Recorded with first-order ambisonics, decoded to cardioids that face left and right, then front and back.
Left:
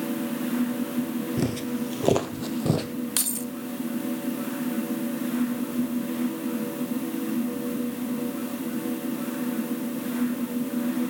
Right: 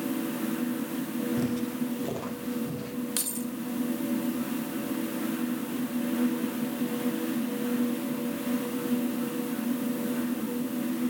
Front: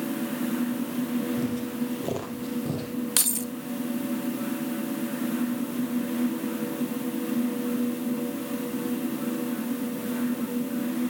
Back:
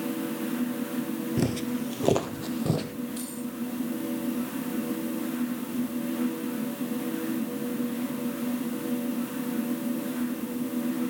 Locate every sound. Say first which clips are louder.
1.4 s footsteps: left 2 dB, back 1 dB; 145° left, 1.5 m; by 2.9 s 115° left, 2.5 m
3.2 s keys jangling: left 4 dB, front 8 dB; 15° left, 0.8 m